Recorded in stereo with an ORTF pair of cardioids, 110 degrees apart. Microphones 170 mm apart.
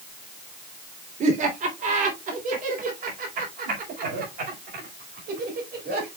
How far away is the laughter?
About 3.5 m.